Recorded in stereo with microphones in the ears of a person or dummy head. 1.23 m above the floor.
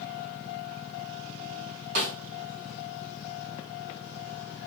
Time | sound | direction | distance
1.9 | a snare drum | 40° right (ahead or behind) | 1.2 m